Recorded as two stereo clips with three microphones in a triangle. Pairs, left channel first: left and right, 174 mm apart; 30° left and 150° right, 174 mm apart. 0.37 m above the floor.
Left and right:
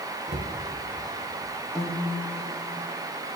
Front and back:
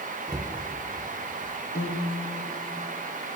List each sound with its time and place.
0.3 s a cupboard door: 85° right, 1.2 m
1.8 s a piano: straight ahead, 1.9 m